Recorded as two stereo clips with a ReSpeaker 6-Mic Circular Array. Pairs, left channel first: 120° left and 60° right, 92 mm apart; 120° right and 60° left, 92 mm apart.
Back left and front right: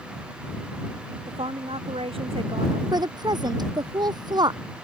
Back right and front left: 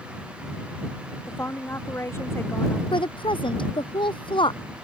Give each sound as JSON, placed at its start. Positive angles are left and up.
{"t": 1.3, "sound": "a woman speaking", "azimuth_deg": -55}
{"t": 2.9, "sound": "a woman speaking", "azimuth_deg": -100}